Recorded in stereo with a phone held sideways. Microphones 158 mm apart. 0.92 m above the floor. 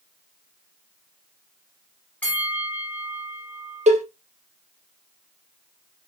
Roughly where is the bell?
Centre.